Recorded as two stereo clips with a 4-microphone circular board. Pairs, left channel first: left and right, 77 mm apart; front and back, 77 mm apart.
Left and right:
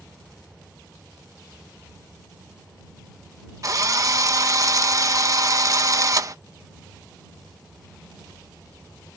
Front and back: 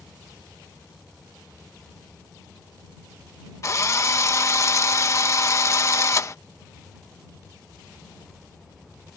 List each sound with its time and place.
3.6 s a drill: 45° right